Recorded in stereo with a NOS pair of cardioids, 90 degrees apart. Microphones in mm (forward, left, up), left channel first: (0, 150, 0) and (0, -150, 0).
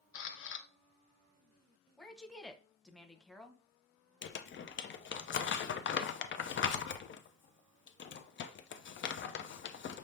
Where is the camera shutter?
45° left, 0.8 m.